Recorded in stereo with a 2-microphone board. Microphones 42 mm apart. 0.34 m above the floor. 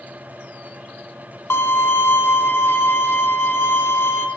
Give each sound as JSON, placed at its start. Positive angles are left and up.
{"t": 1.5, "sound": "a violin", "side_deg": 70, "distance_m": 1.1}